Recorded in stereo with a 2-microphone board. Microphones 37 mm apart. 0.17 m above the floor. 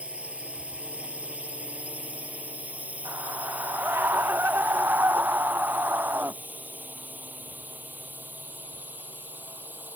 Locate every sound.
0.0 s a drone: 35° right (ahead or behind); by 10.0 s 55° right (ahead or behind)
3.0 s a scream: 80° right